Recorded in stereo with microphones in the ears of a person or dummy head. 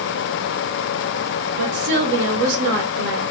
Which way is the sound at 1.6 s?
70° right (ahead or behind).